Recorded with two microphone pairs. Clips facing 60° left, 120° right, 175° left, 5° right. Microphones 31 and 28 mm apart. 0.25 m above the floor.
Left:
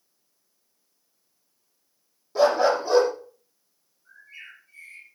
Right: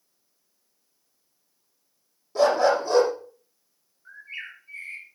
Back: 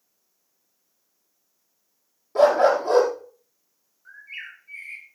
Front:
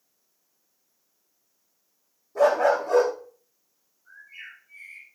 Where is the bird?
155° right, 3.5 m.